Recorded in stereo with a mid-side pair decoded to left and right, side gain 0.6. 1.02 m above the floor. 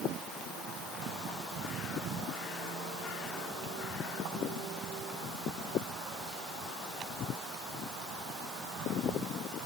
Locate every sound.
Only background noise.